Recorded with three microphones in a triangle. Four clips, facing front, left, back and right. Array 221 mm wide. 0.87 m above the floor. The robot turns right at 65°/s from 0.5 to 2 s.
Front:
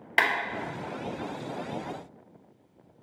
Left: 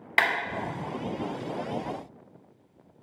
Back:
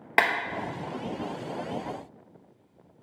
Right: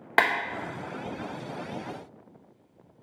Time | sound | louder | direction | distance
0.2 | a clap | right 2 dB, back 2 dB | 130° right | 0.7 m